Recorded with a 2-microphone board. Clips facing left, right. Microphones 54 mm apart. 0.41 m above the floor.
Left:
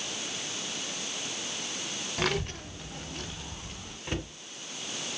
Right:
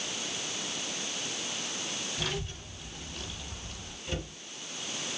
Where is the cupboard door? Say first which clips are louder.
Left 2 dB; 55° left (ahead or behind), 3 m.